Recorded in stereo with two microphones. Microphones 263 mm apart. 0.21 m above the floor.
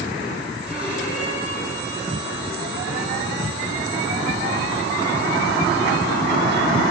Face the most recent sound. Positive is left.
turn(degrees=-5)  # may be behind; listen again after turning